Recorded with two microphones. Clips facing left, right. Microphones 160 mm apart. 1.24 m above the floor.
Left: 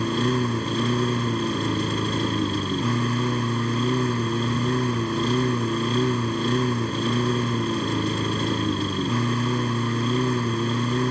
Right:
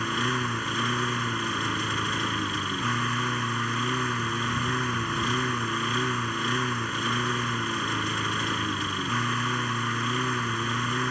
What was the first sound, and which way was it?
A lawn mower, 35° left (ahead or behind).